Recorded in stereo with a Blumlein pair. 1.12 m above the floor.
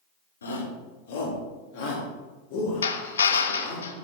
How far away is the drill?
About 0.7 m.